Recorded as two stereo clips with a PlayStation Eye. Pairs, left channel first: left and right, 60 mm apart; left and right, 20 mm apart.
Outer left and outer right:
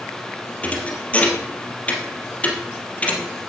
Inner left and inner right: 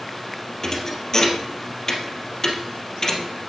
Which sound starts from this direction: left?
A thud, at 0.6 s.